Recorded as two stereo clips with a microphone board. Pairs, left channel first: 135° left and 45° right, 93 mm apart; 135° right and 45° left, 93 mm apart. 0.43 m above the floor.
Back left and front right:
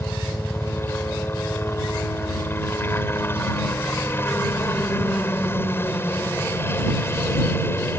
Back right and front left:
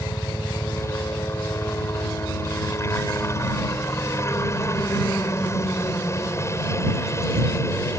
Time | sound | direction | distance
0.0 | a helicopter | 175° right | ?